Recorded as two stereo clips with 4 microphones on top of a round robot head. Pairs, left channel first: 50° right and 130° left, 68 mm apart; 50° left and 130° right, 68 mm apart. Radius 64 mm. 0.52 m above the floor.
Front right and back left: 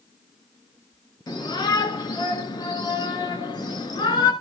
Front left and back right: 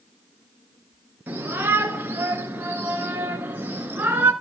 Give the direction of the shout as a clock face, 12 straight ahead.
2 o'clock.